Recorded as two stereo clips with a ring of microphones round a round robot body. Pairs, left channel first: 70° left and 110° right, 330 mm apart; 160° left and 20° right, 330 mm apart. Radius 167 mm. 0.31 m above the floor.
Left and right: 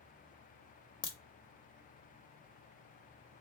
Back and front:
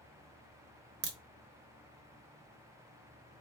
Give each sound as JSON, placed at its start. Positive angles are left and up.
{"t": 1.0, "sound": "a crack", "azimuth_deg": 0, "distance_m": 0.7}